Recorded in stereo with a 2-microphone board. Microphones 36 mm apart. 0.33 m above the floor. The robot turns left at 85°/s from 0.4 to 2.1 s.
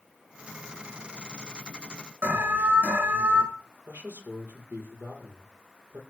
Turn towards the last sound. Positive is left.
turn(degrees=-80)